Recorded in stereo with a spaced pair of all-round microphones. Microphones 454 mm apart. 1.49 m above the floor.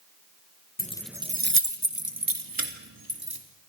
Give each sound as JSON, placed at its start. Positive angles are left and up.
{"t": 0.8, "sound": "keys jangling", "side_deg": 20, "distance_m": 0.7}